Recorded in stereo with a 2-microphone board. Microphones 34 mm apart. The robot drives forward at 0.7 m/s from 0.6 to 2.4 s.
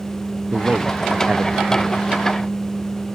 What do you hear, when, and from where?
0.5 s a man speaking: 55° right (ahead or behind)